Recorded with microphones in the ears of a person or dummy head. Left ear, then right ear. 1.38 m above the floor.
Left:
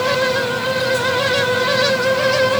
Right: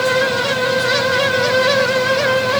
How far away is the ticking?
No ticking in this recording.